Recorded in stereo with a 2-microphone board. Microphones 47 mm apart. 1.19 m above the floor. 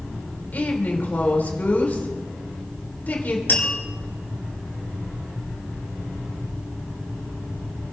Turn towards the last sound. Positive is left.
turn(degrees=45)  # may be behind; listen again after turning